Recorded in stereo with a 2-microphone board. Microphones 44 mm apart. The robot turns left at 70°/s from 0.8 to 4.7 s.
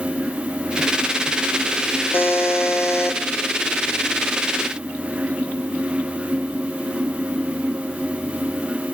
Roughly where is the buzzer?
Behind left.